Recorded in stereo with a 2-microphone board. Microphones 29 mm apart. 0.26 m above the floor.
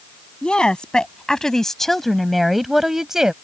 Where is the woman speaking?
30° left (ahead or behind); by 3.3 s 20° right (ahead or behind).